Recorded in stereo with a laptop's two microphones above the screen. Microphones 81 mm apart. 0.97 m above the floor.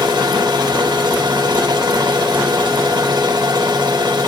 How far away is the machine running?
About 3.5 m.